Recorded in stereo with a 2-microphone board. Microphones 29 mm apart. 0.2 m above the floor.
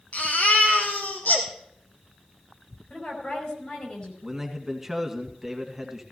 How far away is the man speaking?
About 1.9 m.